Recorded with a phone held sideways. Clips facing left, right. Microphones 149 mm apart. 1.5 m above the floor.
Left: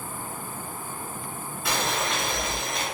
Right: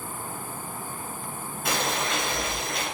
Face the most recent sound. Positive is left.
turn(degrees=-50)  # may be behind; listen again after turning